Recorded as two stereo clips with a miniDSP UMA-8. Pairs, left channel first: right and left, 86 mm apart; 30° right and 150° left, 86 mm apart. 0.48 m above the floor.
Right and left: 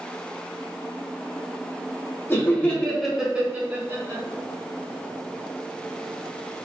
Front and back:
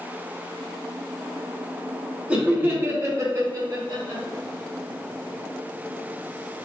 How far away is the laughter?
About 1.0 m.